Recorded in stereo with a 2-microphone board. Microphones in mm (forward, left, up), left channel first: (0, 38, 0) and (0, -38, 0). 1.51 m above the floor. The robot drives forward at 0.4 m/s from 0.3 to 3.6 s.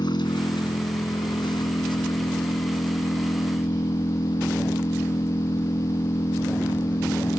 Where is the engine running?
75° left (ahead or behind); by 7.4 s 80° left.